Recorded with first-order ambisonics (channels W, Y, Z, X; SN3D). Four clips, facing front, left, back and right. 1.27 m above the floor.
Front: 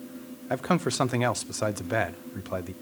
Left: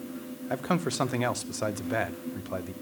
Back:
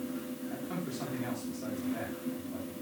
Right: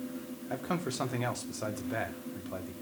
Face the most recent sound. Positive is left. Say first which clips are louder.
# left 6 dB, front 15 dB
turn(degrees=25)